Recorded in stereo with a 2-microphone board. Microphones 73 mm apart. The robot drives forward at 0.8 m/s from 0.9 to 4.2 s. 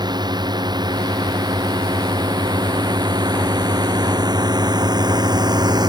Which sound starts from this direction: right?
A drone, at 0.0 s.